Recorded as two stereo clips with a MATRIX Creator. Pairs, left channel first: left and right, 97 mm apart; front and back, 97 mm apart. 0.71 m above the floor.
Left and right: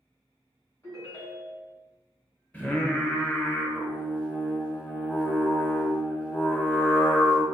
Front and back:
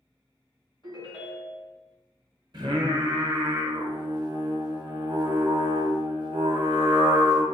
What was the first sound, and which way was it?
A ringtone, 35° left.